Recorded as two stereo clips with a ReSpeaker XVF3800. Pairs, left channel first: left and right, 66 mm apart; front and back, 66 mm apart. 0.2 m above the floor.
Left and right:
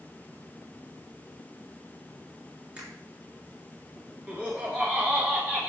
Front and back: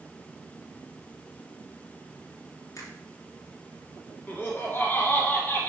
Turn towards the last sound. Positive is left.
turn(degrees=-35)